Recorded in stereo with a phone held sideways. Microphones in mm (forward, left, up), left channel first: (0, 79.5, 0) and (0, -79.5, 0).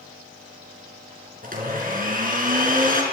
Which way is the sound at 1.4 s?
65° right (ahead or behind).